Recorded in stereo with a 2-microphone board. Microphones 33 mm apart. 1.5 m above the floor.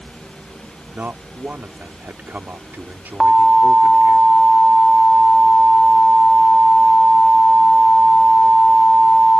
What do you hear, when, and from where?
0.9 s a man speaking: 80° right
3.2 s an alarm: 10° right (ahead or behind)